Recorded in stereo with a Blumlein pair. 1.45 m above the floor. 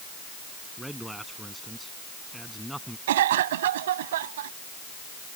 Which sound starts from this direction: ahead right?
A cough, at 3.1 s.